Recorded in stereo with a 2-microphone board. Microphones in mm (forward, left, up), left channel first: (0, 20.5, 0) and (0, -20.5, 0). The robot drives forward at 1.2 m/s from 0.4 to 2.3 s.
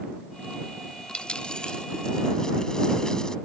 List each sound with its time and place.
1.1 s a dropped coin: 25° left (ahead or behind); by 3.4 s 15° left (ahead or behind)